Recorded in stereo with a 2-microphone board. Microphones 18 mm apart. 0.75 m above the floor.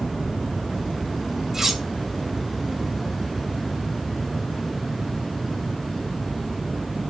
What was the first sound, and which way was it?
Cutlery clinking, 20° right (ahead or behind).